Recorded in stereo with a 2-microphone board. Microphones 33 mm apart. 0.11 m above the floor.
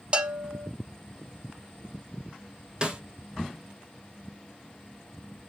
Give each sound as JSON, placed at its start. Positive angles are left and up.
{"t": 0.1, "sound": "a bell", "side_deg": -30, "distance_m": 0.6}
{"t": 2.8, "sound": "a snare drum", "side_deg": -25, "distance_m": 1.2}